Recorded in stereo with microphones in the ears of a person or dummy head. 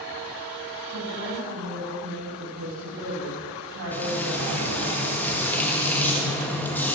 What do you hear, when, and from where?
0.9 s a woman speaking: 65° right (ahead or behind), 7.5 m
3.9 s frying: 10° left (ahead or behind), 1.7 m